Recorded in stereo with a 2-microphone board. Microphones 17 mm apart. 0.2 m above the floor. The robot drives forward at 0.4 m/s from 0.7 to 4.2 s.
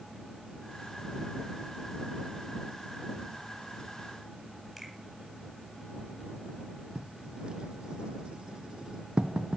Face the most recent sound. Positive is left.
turn(degrees=-75)  # may be behind; listen again after turning